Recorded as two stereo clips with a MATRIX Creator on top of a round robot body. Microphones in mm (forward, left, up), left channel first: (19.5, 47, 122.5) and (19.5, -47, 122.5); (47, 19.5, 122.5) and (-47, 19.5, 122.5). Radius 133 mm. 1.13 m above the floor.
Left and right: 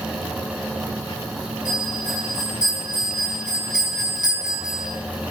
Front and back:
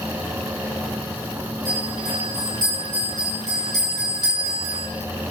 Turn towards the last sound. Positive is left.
turn(degrees=-135)